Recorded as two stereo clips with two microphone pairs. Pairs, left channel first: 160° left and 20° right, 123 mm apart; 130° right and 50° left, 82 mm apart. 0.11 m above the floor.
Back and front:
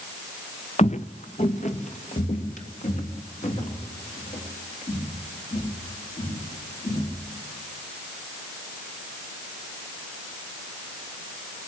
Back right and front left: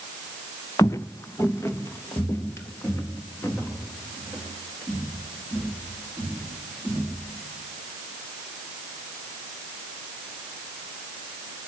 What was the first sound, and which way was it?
Footsteps, straight behind.